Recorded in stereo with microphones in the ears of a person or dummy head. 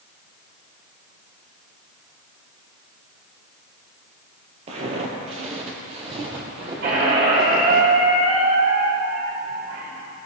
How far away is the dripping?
I don't hear dripping.